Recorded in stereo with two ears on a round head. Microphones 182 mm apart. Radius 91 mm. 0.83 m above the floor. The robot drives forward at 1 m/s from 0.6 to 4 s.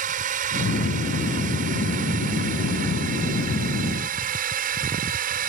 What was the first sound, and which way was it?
A drone, 40° right (ahead or behind).